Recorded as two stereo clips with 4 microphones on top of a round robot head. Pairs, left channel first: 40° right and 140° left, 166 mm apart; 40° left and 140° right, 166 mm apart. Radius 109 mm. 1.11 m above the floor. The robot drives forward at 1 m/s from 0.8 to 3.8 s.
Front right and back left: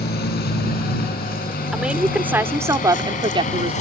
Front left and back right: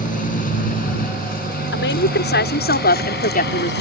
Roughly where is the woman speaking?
Ahead left.